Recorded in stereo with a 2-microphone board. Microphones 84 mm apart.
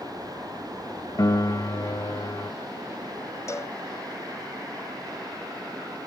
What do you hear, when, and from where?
1.2 s a piano: 45° left (ahead or behind)
3.5 s a cowbell: 35° left (ahead or behind)